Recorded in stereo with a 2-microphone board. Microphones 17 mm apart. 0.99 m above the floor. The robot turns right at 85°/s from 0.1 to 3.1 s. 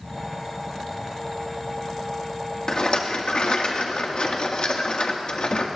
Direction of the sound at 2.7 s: 40° left.